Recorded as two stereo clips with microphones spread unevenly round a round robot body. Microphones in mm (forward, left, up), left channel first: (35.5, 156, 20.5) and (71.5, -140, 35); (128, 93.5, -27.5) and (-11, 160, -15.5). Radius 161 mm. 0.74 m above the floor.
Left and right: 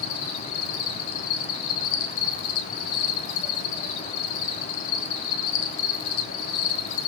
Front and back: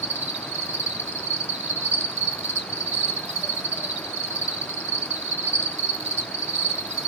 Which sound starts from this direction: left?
An insect, at 0.0 s.